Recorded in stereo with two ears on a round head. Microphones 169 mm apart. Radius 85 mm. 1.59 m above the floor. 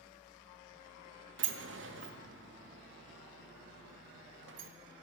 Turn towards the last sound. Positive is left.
turn(degrees=-70)  # may be behind; listen again after turning